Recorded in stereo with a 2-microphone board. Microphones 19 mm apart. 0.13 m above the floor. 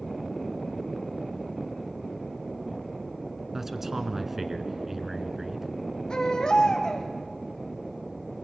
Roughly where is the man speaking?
Centre.